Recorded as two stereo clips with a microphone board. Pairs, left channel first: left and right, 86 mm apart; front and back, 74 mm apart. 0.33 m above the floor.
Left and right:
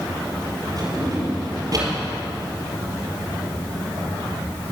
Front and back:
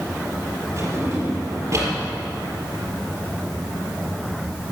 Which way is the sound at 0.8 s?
130° right.